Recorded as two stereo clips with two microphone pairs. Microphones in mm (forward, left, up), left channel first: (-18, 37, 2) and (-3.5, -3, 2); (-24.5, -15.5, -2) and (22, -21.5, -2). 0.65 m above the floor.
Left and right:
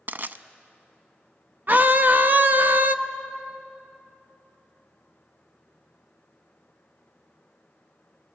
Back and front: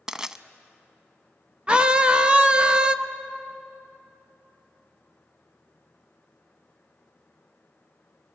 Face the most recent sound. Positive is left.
turn(degrees=-65)